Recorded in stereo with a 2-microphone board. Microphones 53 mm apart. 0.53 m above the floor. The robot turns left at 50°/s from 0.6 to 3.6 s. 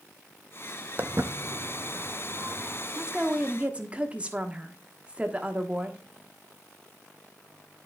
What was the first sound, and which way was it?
Footsteps, 35° right (ahead or behind).